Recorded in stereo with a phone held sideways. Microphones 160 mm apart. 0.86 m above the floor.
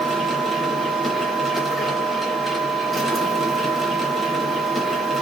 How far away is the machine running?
About 0.8 m.